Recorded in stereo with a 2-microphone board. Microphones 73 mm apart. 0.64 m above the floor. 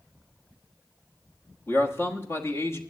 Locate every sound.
1.7 s a man speaking: 35° left (ahead or behind), 1.2 m